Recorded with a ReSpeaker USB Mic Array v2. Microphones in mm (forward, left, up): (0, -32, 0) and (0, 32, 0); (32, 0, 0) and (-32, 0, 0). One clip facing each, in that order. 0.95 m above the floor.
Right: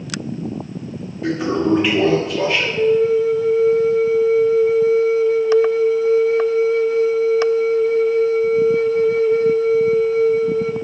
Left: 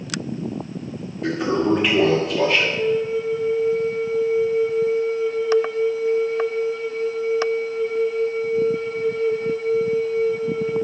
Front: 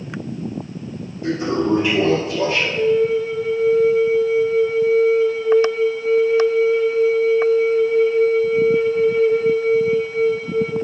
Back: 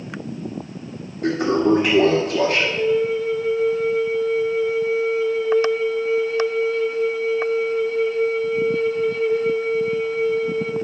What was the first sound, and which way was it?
A toilet flushing, straight behind.